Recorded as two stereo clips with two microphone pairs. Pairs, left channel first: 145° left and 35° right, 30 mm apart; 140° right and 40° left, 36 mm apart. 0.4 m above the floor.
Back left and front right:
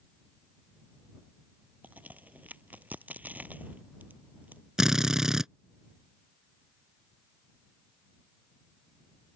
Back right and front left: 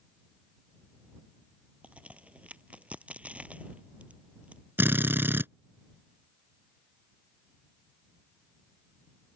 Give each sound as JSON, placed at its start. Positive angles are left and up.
{"t": 1.8, "sound": "a crack", "azimuth_deg": -10}
{"t": 4.8, "sound": "a drill", "azimuth_deg": 35}